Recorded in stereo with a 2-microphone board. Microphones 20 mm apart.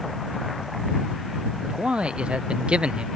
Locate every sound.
1.6 s a man speaking: 55° right (ahead or behind)